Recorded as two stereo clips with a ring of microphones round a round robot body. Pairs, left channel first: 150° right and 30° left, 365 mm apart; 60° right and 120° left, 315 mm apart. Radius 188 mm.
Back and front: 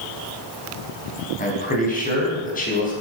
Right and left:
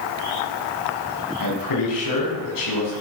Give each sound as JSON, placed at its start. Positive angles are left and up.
{"t": 1.4, "sound": "a man speaking", "azimuth_deg": -85, "distance_m": 4.0}